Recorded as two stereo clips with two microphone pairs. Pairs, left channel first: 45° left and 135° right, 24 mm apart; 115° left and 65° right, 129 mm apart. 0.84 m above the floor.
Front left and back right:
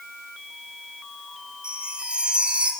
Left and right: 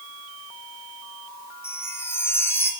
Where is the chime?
175° right, 2 m.